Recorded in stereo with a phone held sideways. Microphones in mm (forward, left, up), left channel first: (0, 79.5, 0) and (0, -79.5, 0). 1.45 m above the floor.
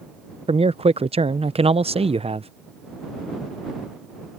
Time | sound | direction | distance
0.5 | a man speaking | 40° right (ahead or behind) | ?